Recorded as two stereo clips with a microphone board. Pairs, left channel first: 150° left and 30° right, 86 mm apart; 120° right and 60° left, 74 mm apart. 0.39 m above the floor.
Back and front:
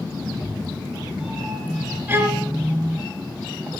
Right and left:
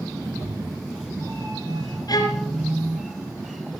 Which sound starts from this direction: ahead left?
A cat meowing, at 0.2 s.